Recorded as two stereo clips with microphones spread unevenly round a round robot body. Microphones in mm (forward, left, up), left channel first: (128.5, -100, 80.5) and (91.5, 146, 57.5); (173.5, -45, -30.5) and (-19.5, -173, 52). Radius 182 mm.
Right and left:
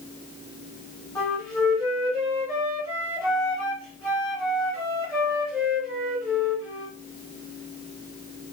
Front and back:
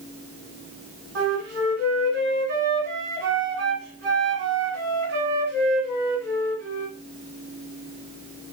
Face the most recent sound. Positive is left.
turn(degrees=-160)